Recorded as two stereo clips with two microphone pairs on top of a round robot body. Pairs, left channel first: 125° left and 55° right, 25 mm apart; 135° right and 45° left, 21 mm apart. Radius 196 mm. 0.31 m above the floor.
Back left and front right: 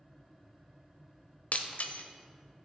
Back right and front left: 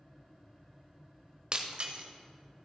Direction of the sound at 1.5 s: 100° left.